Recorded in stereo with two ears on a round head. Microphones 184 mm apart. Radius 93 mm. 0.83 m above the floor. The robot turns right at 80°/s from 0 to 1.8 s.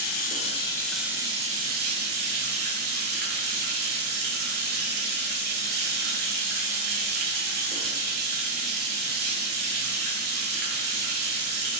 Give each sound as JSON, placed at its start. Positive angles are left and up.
{"t": 0.0, "sound": "running water", "azimuth_deg": 105, "distance_m": 0.7}